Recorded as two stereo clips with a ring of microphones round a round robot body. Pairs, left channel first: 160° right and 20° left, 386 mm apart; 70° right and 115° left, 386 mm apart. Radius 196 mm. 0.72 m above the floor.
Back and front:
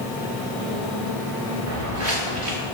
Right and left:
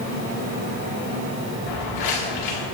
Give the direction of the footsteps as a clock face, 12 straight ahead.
1 o'clock.